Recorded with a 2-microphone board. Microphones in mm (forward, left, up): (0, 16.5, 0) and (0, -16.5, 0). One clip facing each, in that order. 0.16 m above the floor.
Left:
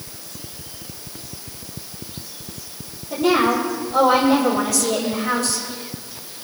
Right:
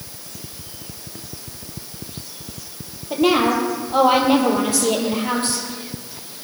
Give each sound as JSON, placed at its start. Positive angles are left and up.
{"t": 3.1, "sound": "a woman speaking", "side_deg": -35, "distance_m": 4.5}